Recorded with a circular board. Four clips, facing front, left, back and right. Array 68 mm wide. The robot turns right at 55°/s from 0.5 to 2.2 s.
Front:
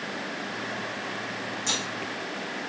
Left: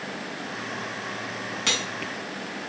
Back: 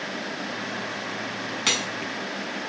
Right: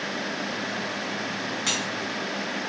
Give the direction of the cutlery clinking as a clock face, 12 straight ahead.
7 o'clock.